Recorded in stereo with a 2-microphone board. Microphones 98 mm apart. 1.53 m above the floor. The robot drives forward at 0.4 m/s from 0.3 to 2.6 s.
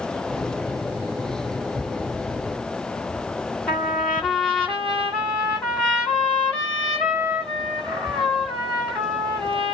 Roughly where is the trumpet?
Centre.